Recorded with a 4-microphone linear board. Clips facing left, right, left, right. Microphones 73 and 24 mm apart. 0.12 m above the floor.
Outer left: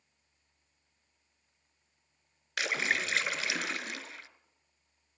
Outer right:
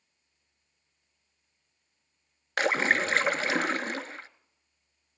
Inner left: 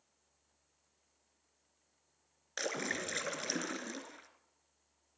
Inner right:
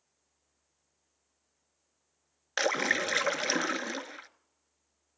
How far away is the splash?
About 0.8 m.